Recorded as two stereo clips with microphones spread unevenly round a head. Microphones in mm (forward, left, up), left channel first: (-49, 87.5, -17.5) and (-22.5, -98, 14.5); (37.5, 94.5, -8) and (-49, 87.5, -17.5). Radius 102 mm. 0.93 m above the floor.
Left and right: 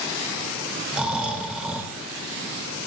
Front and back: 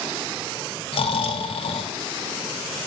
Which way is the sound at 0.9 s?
5° left.